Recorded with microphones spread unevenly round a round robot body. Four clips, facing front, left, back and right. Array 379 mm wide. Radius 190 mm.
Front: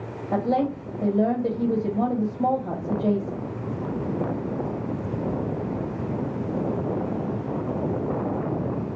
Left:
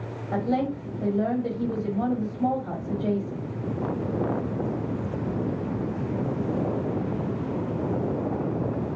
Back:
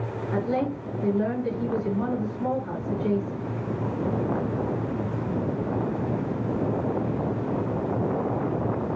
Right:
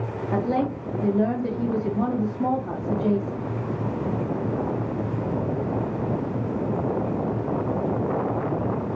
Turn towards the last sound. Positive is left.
turn(degrees=-10)